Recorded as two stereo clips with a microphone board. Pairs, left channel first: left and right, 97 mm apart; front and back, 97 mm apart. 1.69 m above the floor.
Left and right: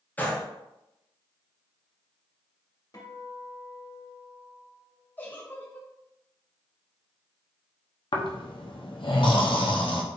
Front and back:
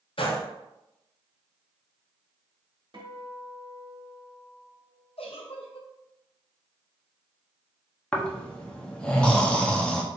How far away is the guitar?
About 1.0 m.